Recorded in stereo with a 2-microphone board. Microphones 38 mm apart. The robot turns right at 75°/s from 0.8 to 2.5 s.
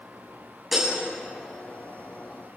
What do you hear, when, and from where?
0.7 s breaking glass: 5° right (ahead or behind), 5.5 m; by 0.9 s 15° right (ahead or behind), 5.5 m